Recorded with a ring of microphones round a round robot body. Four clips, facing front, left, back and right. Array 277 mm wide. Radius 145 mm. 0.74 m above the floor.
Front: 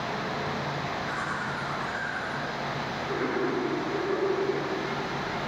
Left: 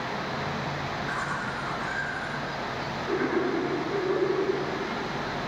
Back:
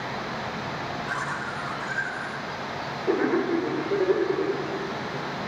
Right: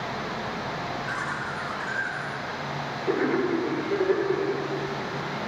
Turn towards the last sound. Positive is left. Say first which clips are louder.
# even, back 1 dB
turn(degrees=-145)